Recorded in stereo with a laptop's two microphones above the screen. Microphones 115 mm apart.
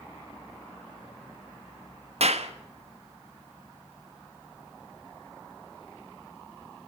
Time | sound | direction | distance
2.2 | a clap | 65° right (ahead or behind) | 1.4 m